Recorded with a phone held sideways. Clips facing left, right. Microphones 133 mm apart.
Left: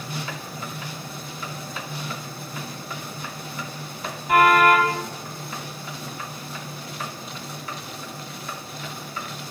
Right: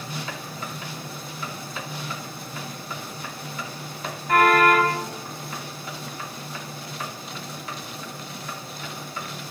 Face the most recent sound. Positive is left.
turn(degrees=10)  # may be behind; listen again after turning